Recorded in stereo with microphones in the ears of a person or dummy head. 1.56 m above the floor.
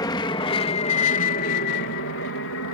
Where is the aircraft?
20° left (ahead or behind); by 2.7 s 65° left (ahead or behind).